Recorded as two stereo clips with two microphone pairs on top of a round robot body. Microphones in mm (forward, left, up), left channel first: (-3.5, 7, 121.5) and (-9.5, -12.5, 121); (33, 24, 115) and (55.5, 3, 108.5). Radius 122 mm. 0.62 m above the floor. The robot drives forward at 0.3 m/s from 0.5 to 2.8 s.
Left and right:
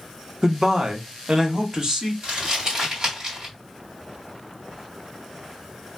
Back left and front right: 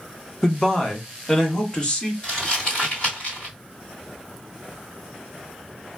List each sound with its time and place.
0.4 s a man speaking: 145° right, 1.0 m; by 2.1 s 160° right, 1.3 m
2.2 s crumpling: 160° right, 1.8 m